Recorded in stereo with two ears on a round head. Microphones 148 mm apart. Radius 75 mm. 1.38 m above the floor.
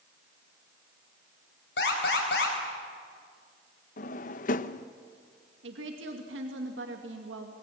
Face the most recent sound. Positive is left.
turn(degrees=-85)